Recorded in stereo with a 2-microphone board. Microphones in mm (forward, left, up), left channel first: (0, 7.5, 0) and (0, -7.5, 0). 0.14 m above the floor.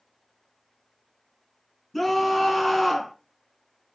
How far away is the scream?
About 1.4 m.